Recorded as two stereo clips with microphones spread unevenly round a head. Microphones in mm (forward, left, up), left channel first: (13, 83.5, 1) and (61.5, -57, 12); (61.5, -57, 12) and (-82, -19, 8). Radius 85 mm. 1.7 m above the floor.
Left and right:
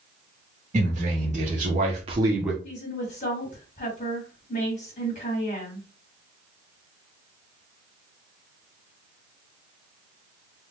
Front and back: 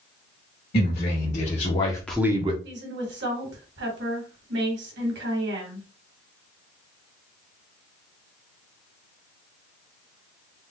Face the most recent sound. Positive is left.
turn(degrees=165)